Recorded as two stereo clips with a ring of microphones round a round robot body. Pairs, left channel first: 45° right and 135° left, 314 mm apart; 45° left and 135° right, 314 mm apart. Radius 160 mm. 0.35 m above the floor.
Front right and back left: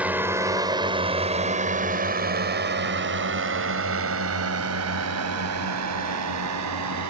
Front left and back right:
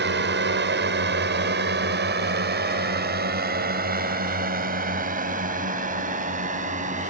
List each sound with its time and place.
0.0 s a drone: 145° right; by 7.1 s 160° left